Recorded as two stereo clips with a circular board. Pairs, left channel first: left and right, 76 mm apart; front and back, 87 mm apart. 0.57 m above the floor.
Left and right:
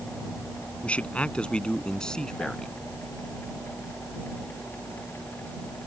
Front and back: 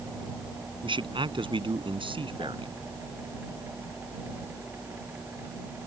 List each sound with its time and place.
0.8 s a man speaking: 165° left; by 2.8 s 175° left